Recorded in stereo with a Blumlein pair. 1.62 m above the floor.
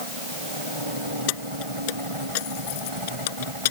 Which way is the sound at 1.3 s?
45° left.